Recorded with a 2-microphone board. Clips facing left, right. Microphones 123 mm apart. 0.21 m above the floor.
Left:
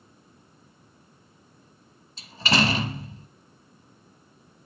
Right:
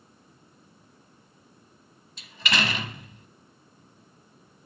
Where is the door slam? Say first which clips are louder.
Left 5 dB; 35° left (ahead or behind), 0.8 m.